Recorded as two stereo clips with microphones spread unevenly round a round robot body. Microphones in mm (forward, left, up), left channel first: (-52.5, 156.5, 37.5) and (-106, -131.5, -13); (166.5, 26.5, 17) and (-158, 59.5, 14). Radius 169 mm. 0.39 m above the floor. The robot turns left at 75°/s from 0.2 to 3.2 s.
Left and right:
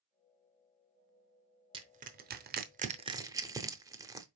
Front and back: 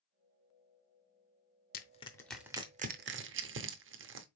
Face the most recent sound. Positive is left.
turn(degrees=-160)